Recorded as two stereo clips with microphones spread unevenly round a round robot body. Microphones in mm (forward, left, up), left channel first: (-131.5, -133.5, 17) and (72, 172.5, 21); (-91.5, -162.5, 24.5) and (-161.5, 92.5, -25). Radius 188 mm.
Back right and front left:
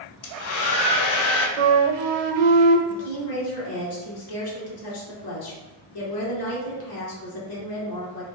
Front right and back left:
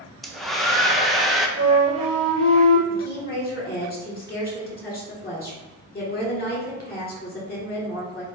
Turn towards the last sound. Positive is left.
turn(degrees=-135)